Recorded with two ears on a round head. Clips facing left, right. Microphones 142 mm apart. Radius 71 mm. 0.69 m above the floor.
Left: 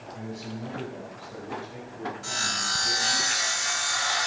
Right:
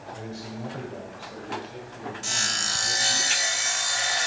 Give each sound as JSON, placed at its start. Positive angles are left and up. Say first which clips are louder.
{"t": 0.1, "sound": "a man speaking", "louder": "left 1 dB", "side_deg": -45, "distance_m": 2.0}
{"t": 2.2, "sound": "sawing", "louder": "left 1 dB", "side_deg": -30, "distance_m": 0.9}